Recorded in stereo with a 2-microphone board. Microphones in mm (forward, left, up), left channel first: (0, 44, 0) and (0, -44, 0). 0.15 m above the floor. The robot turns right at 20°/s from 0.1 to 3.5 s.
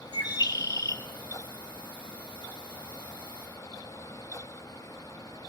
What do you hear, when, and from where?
0.1 s a bird: 55° left (ahead or behind), 0.8 m; by 1.0 s 35° left (ahead or behind), 0.8 m